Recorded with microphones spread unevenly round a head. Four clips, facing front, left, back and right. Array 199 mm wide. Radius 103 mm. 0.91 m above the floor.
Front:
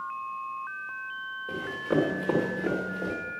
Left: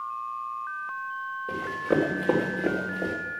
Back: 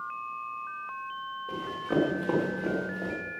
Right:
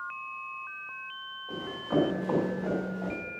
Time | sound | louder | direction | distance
1.5 | running footsteps | left 4 dB, front 2 dB | 75° left | 4.5 m